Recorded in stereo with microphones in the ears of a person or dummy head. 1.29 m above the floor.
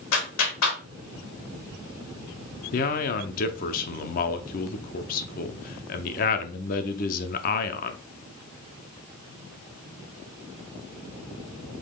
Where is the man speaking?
45° left (ahead or behind), 0.6 m.